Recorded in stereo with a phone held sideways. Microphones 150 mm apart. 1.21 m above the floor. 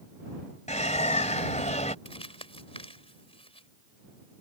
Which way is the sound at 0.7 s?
50° left (ahead or behind).